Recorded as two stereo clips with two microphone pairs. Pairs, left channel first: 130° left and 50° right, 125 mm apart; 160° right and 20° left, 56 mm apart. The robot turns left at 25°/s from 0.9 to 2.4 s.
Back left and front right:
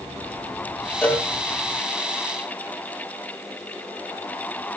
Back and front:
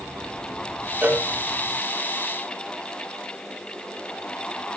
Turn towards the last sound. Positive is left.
turn(degrees=25)